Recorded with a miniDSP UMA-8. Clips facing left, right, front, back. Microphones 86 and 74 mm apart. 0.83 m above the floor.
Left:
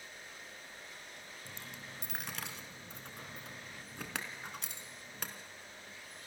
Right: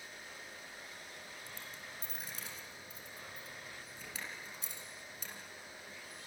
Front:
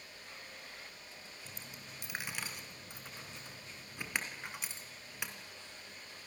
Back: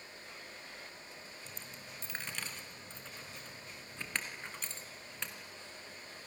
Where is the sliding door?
I don't hear a sliding door.